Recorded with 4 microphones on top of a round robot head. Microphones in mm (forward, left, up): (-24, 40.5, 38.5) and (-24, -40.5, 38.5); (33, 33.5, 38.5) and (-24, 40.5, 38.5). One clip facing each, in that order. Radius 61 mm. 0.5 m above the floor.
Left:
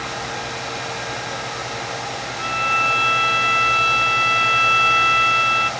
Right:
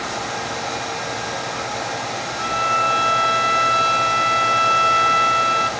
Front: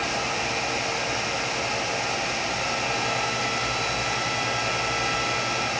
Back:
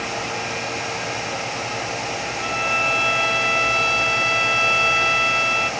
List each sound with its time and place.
2.4 s a violin: 155° right, 1.3 m